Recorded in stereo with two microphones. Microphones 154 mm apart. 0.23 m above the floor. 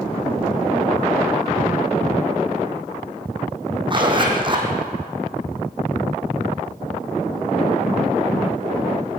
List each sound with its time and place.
3.9 s a zipper: 35° right (ahead or behind), 3.5 m